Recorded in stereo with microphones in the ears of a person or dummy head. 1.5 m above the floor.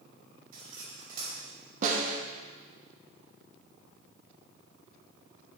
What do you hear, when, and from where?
0.5 s cutlery clinking: 55° right (ahead or behind), 5 m
1.8 s a snare drum: 45° right (ahead or behind), 1.5 m